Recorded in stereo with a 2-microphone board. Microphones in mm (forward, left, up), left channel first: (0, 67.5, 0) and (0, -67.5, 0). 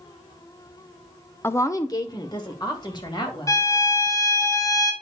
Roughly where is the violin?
Left.